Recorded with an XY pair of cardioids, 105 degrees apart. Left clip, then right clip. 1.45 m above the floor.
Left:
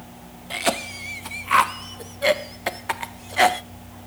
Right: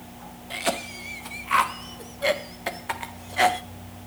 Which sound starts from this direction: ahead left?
A cough, at 0.5 s.